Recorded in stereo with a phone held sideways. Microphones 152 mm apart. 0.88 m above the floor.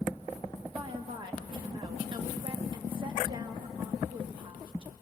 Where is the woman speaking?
30° right (ahead or behind), 1.6 m.